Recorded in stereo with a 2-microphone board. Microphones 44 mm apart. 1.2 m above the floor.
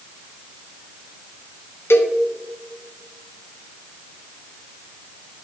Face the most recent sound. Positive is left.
turn(degrees=65)  # may be behind; listen again after turning